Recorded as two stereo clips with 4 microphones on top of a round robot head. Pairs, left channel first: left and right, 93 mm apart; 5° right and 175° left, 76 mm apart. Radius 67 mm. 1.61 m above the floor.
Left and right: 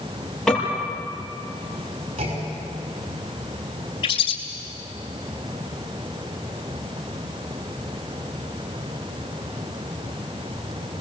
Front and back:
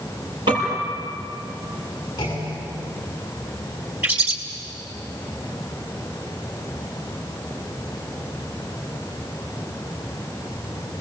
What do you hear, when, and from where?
0.5 s a piano: 175° left, 7.5 m
2.2 s a clunk: 65° right, 6 m
4.0 s a bird: 115° left, 3.5 m